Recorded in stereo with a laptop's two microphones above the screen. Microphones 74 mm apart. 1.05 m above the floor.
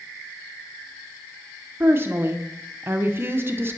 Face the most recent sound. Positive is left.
turn(degrees=-30)  # may be behind; listen again after turning